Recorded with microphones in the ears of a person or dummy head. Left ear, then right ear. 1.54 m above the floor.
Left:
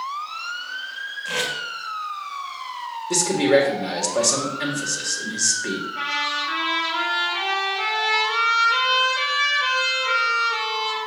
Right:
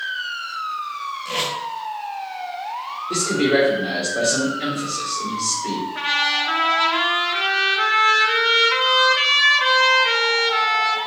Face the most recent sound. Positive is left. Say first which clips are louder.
# right 5 dB
turn(degrees=-20)  # may be behind; listen again after turning